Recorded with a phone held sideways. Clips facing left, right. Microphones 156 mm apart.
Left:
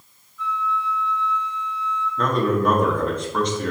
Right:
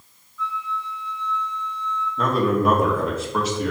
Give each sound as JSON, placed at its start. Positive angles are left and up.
{"t": 0.4, "sound": "a flute", "side_deg": 50, "distance_m": 1.4}
{"t": 2.2, "sound": "a man speaking", "side_deg": -5, "distance_m": 1.5}